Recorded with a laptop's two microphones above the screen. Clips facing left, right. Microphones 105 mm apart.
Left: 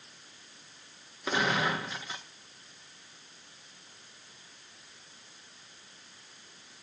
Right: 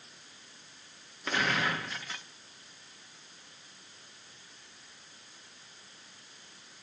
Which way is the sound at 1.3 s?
15° left (ahead or behind).